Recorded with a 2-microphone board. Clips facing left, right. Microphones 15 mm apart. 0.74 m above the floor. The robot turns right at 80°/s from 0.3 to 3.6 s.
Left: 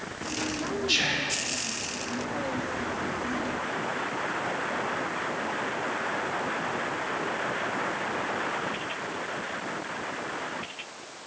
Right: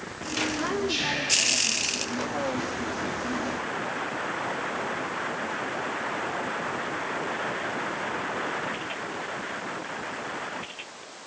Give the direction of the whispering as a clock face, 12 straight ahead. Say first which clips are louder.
Left 1 dB; 8 o'clock.